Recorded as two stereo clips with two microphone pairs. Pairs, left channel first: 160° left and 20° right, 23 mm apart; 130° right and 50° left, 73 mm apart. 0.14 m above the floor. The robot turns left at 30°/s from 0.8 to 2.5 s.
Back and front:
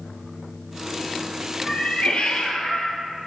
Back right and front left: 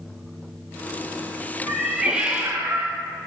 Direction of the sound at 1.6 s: 140° left.